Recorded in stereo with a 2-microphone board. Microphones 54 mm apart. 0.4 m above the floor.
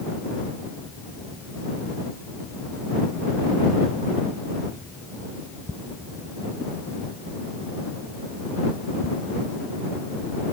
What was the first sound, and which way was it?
Only background noise.